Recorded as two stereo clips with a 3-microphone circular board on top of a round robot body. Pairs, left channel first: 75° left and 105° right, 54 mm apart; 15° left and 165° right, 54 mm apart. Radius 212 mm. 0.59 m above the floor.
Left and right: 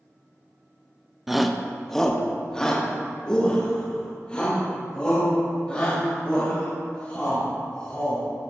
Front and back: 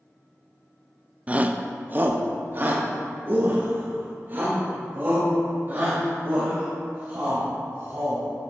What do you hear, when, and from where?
1.3 s a shout: 175° left, 1.0 m; by 8.2 s 145° left, 6.5 m